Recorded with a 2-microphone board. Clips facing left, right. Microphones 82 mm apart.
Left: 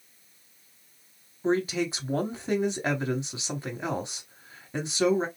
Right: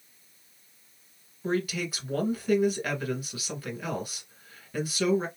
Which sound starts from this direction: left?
A man speaking, at 1.4 s.